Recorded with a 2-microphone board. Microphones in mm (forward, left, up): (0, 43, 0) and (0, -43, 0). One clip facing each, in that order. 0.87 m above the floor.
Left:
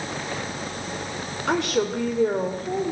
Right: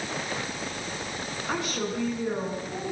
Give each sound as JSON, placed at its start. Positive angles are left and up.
{"t": 1.5, "sound": "a woman speaking", "side_deg": 80, "distance_m": 2.5}